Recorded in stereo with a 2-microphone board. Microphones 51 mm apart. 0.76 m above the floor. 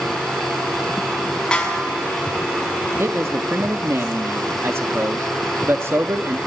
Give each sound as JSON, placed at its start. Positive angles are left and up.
{"t": 1.5, "sound": "a snare drum", "side_deg": 20, "distance_m": 5.5}
{"t": 3.0, "sound": "a man speaking", "side_deg": -55, "distance_m": 0.9}